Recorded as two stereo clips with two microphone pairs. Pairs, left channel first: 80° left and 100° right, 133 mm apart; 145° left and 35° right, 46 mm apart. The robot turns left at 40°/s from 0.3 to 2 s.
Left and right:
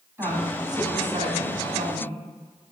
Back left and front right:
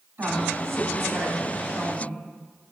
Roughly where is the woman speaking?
Ahead right.